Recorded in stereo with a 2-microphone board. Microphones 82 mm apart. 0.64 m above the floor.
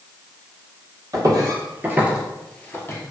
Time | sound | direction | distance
1.1 | footsteps | 50° right (ahead or behind) | 1.0 m